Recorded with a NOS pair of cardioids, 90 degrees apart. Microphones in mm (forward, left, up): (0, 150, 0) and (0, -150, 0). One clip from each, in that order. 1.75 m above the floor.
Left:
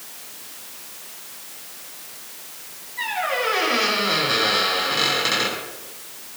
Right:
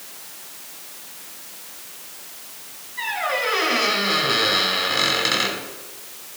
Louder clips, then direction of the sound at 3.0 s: Even; 20° right.